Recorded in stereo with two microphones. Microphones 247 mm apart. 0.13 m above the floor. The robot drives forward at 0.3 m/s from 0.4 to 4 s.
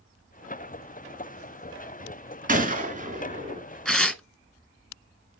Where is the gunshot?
30° right (ahead or behind), 1.7 m.